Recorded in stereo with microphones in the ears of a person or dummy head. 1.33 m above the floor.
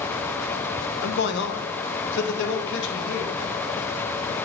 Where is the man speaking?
65° left (ahead or behind), 0.8 m; by 3.4 s 75° left (ahead or behind), 2.0 m.